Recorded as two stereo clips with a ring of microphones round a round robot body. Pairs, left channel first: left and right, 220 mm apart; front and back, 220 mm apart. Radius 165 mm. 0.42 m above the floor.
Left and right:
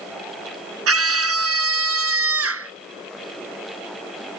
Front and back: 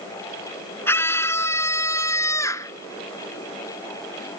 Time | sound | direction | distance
0.9 | a scream | 85° right | ?